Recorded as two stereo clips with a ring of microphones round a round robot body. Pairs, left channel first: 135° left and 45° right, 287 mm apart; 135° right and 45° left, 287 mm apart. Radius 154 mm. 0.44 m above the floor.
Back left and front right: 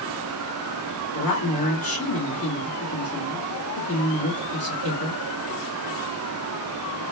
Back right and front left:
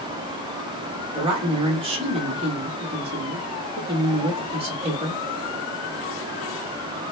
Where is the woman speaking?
115° left, 1.4 m.